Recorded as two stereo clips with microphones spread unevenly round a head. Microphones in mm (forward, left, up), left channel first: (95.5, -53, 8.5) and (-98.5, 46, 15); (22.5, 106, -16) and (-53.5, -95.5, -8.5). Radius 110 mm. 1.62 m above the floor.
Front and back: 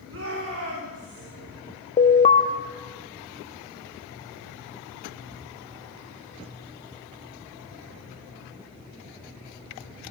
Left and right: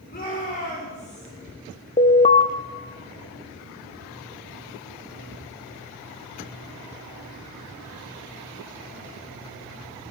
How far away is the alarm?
About 0.8 m.